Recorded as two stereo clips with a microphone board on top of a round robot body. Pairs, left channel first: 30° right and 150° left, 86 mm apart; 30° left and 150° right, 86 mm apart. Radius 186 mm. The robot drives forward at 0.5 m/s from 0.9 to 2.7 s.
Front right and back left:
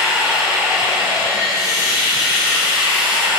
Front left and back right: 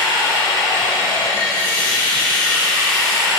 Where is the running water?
85° left, 1.6 m; by 3.4 s 115° left, 1.8 m.